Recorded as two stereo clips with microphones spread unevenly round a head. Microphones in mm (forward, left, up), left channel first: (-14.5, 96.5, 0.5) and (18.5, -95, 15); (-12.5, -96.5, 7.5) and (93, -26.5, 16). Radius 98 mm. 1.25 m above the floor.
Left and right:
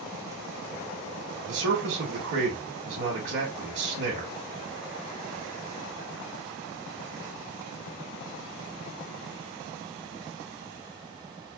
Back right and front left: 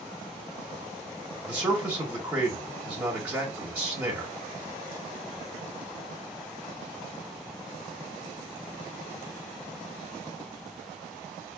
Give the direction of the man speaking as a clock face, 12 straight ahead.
1 o'clock.